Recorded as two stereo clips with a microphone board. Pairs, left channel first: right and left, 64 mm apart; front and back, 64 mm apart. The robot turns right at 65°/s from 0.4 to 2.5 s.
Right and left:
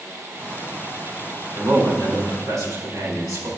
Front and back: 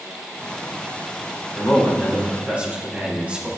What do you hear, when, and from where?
1.6 s a man speaking: 50° left, 4 m; by 3.5 s 110° left, 4 m